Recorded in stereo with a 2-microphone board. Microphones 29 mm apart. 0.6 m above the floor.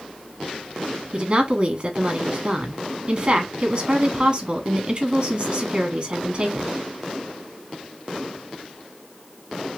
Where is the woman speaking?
35° right (ahead or behind), 1.1 m.